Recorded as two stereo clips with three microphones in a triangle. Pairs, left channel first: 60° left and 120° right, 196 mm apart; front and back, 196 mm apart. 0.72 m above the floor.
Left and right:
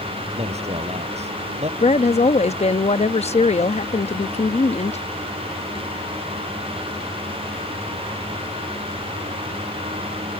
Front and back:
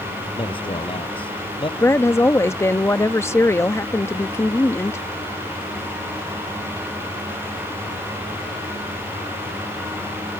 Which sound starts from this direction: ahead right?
A man speaking, at 0.4 s.